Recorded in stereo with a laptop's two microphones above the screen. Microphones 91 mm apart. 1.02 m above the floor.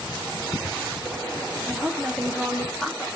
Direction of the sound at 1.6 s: 5° left (ahead or behind).